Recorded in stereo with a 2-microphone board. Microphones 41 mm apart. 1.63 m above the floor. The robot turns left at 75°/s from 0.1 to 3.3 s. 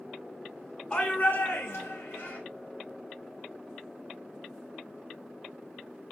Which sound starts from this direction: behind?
A shout, at 0.9 s.